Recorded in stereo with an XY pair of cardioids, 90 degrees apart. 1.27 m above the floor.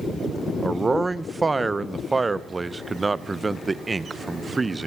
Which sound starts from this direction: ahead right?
A man speaking, at 0.6 s.